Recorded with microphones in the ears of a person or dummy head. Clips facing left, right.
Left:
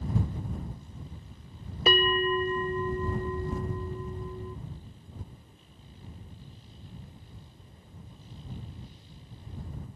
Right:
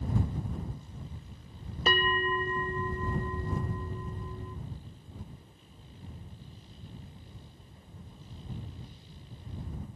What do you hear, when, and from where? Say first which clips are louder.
1.9 s a bell: left 5 dB; 10° left (ahead or behind)